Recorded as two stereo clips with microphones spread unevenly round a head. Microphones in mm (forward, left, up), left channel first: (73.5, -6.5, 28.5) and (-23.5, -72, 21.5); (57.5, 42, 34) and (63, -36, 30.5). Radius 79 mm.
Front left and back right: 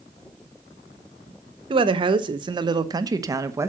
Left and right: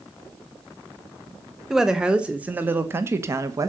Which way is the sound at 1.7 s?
170° right.